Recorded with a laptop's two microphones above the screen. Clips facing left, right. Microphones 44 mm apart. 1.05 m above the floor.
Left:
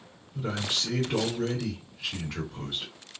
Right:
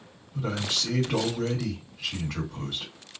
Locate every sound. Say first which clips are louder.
0.3 s a man speaking: right 1 dB; 80° right, 1.4 m